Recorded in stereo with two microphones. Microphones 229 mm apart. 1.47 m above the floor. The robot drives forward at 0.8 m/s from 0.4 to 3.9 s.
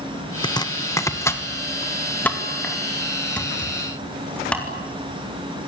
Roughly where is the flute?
I don't hear a flute.